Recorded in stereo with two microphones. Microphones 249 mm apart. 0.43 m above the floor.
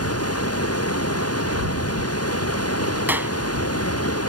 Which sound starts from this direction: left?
Running water, at 0.0 s.